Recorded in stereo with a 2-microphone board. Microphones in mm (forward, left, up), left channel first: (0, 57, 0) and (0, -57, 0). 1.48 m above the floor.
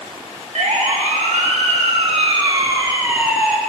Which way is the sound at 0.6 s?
85° right.